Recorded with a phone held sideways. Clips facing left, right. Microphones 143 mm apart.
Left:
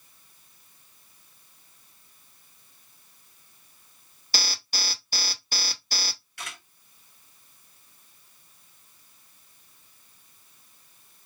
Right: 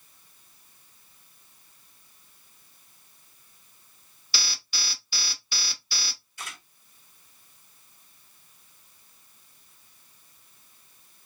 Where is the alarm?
45° left (ahead or behind), 0.5 m.